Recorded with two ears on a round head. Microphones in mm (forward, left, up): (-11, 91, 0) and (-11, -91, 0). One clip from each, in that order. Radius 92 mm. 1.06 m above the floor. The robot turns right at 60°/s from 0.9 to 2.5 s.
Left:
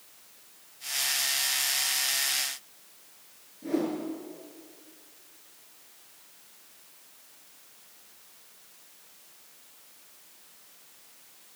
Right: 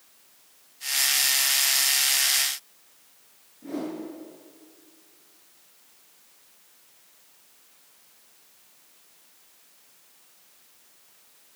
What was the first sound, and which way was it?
A whoosh, 10° left (ahead or behind).